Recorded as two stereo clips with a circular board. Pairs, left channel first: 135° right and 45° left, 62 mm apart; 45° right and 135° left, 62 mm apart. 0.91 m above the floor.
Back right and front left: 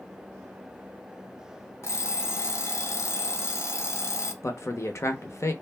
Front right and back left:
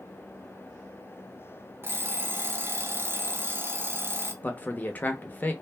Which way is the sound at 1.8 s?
175° right.